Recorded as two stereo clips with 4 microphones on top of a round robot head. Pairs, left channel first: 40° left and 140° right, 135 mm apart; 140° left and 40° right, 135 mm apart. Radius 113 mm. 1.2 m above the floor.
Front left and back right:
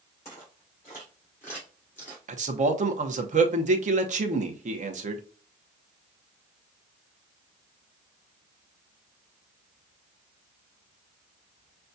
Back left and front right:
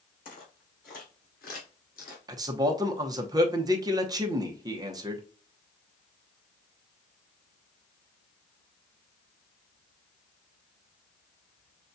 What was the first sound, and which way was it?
Footsteps, 110° left.